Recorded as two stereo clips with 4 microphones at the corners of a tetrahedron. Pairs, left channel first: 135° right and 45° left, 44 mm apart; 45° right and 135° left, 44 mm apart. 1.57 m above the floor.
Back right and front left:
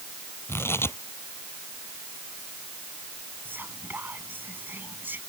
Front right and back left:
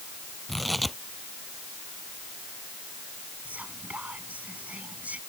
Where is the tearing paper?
135° right.